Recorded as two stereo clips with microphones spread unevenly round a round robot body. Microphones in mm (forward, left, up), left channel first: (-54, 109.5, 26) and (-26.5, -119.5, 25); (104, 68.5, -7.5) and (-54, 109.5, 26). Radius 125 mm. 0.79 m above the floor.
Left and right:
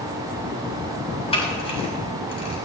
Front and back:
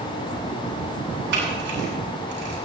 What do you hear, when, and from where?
1.3 s a camera shutter: 160° left, 8 m